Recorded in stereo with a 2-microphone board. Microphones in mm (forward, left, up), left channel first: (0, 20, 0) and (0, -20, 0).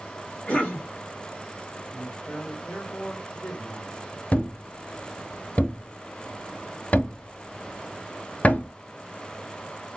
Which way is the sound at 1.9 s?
25° left (ahead or behind).